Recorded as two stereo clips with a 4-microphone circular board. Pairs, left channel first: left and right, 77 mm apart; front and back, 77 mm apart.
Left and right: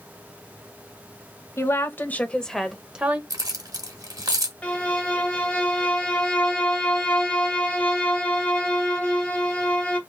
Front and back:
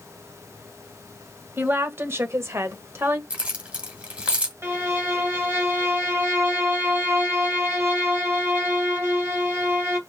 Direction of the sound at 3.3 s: 110° right.